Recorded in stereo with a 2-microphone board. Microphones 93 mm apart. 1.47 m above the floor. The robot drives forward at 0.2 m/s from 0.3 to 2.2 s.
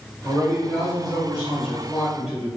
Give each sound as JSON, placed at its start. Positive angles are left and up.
{"t": 0.2, "sound": "a man speaking", "side_deg": 0, "distance_m": 1.2}